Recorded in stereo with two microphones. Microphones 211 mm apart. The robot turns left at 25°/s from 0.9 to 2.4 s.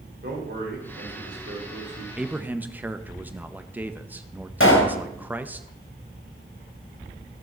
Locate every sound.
0.2 s a man speaking: 55° right (ahead or behind), 3.5 m; by 2.1 s 80° right, 3.5 m
2.2 s a man speaking: centre (ahead or behind), 0.7 m; by 5.6 s 10° right (ahead or behind), 0.7 m
4.6 s a pop: 75° left (ahead or behind), 2.5 m